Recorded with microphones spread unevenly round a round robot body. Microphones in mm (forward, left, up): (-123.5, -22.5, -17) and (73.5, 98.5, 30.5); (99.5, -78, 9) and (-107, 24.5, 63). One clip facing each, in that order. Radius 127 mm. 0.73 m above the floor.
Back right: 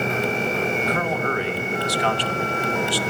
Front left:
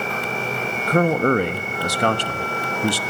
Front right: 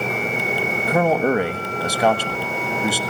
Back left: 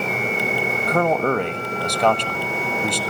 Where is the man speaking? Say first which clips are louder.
Front left 7 dB, front right 2 dB; 25° left, 1.2 m.